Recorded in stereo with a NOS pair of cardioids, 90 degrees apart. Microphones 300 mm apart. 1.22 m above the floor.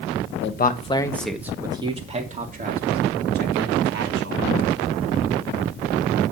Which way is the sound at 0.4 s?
40° left.